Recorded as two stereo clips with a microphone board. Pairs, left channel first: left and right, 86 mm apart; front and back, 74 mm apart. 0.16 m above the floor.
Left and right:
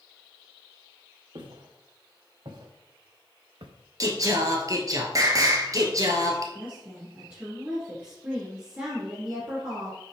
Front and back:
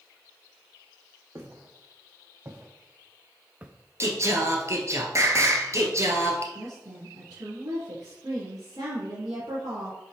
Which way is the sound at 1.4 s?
120° right.